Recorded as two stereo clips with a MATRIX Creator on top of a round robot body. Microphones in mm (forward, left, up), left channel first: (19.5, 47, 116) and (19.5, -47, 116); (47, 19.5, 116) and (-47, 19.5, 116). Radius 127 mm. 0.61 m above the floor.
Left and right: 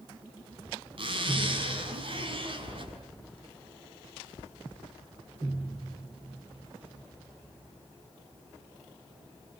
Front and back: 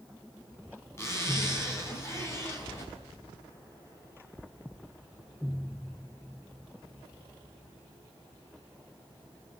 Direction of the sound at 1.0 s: 65° right.